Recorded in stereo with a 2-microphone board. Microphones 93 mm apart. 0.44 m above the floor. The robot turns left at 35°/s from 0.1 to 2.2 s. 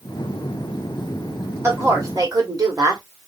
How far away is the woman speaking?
About 1.8 m.